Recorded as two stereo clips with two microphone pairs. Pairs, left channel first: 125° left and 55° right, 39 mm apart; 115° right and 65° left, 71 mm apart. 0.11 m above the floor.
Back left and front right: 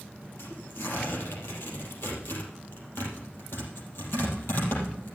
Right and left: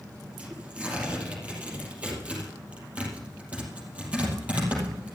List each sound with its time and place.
0.4 s tearing paper: 135° left, 4.5 m